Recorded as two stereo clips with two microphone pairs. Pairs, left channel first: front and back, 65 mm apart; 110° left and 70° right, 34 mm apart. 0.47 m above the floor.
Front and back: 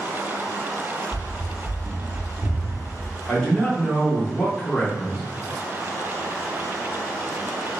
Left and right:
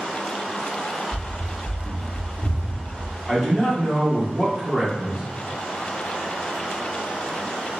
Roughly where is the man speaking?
Ahead right.